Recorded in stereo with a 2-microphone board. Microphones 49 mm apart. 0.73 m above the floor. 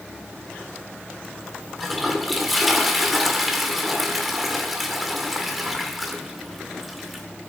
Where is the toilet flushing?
Centre (ahead or behind), 1.6 m.